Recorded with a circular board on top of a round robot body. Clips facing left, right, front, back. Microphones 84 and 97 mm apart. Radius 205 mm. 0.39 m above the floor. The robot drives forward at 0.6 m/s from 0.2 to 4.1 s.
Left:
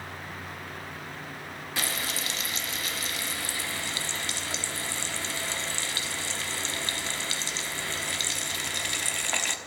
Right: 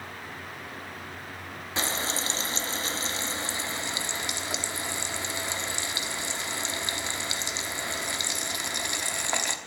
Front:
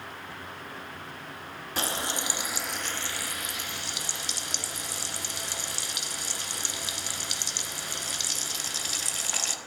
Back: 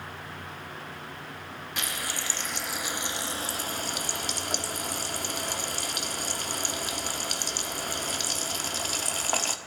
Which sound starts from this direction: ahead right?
Frying, at 1.8 s.